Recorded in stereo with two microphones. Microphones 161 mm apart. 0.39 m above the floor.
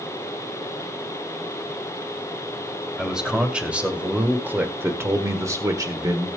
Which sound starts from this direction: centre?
A man speaking, at 3.0 s.